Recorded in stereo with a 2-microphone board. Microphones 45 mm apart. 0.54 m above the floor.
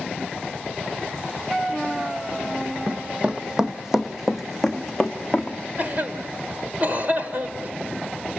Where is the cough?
40° right (ahead or behind), 1.9 m.